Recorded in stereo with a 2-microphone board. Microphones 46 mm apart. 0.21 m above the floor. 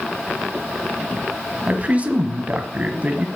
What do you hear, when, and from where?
1.7 s a man speaking: 35° right (ahead or behind), 1.2 m